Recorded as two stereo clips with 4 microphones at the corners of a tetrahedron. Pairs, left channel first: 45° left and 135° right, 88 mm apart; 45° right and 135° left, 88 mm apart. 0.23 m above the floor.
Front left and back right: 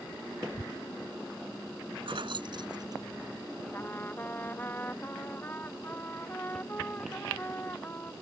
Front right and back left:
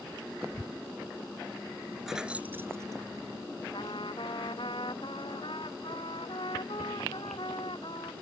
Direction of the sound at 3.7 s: 25° right.